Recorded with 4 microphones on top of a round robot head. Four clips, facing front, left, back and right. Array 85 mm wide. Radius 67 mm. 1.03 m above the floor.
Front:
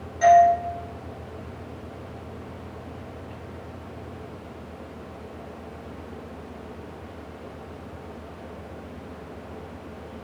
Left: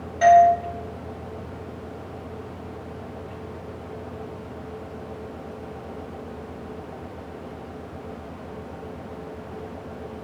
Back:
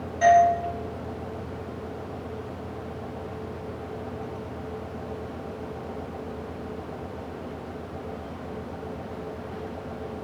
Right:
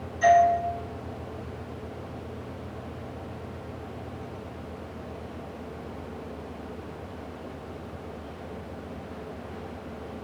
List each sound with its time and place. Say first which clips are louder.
0.2 s a doorbell: left 5 dB, front 2 dB; 95° left, 3 m